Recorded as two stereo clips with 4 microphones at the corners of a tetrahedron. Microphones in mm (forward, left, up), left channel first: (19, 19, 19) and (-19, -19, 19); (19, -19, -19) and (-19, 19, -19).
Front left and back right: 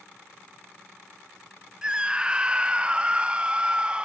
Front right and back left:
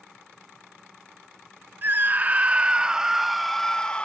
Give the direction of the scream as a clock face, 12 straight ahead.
7 o'clock.